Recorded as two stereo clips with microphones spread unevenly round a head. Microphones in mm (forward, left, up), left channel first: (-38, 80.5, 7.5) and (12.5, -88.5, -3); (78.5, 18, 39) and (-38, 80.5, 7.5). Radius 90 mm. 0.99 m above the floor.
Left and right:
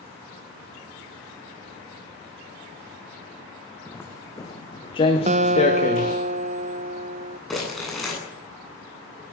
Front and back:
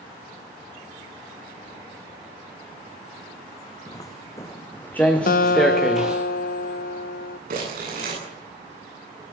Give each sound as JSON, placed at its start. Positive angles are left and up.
{"t": 3.9, "sound": "footsteps", "azimuth_deg": 30, "distance_m": 3.0}
{"t": 5.3, "sound": "a guitar", "azimuth_deg": -30, "distance_m": 0.8}
{"t": 7.5, "sound": "crumpling", "azimuth_deg": -165, "distance_m": 9.5}